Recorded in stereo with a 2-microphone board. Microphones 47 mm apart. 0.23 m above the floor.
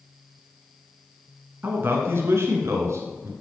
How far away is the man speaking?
About 2 m.